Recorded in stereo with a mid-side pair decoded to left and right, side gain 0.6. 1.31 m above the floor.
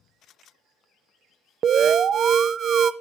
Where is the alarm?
40° right, 0.5 m.